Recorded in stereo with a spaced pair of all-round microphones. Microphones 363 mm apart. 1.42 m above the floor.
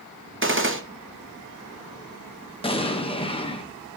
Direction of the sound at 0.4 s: 35° right (ahead or behind).